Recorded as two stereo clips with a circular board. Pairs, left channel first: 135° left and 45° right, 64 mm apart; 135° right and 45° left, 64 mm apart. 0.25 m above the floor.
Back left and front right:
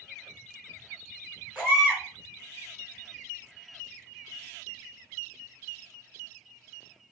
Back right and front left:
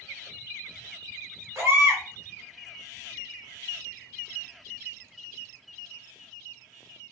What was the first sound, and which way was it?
A baby crying, 20° left.